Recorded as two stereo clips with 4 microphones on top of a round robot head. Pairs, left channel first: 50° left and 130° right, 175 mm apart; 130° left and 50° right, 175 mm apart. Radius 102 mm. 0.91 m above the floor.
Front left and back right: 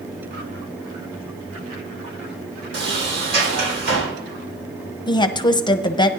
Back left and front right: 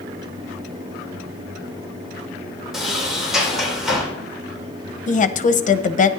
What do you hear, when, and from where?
2.7 s a sliding door: 140° right, 4 m
5.1 s a woman speaking: 110° left, 0.9 m